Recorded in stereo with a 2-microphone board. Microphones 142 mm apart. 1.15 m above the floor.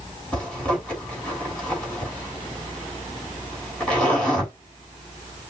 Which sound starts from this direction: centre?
A zipper, at 0.3 s.